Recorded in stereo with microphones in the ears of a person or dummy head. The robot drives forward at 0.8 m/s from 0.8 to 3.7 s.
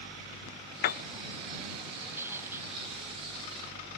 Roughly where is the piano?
Left.